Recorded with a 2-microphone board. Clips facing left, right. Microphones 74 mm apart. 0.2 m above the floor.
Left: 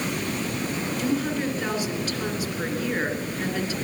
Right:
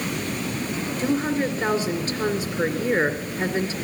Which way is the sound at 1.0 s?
30° right (ahead or behind).